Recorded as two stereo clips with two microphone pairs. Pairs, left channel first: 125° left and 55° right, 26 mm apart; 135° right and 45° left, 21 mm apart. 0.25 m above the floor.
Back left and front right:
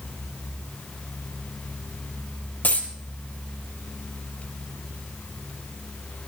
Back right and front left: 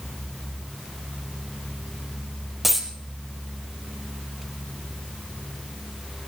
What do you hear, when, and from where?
2.6 s a dropped coin: 130° left, 2.5 m